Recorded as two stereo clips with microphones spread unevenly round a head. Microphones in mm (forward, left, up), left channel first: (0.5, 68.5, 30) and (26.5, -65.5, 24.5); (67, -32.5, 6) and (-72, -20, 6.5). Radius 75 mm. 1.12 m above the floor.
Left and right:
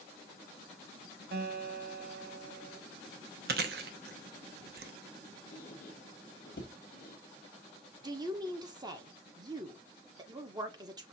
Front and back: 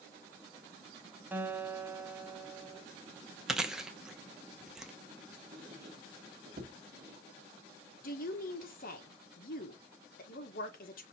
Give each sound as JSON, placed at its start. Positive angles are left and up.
{"t": 1.3, "sound": "a guitar", "azimuth_deg": -105, "distance_m": 0.9}
{"t": 3.5, "sound": "chewing", "azimuth_deg": -100, "distance_m": 0.7}
{"t": 5.5, "sound": "a squeak", "azimuth_deg": 135, "distance_m": 0.9}
{"t": 8.0, "sound": "a woman speaking", "azimuth_deg": -20, "distance_m": 1.2}